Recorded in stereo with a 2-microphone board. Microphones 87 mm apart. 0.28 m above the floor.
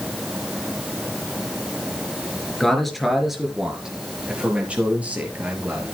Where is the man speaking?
5° left (ahead or behind), 4 m; by 5.9 s 20° right (ahead or behind), 5.5 m.